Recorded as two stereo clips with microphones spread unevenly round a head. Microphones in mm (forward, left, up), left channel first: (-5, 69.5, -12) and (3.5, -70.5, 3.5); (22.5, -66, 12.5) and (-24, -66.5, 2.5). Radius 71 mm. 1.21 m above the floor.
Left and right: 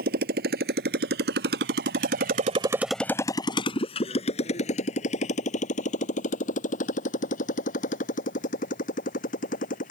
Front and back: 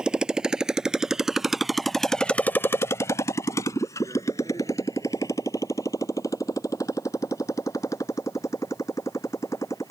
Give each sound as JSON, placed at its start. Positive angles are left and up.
{"t": 0.0, "sound": "a motorcycle", "azimuth_deg": -110}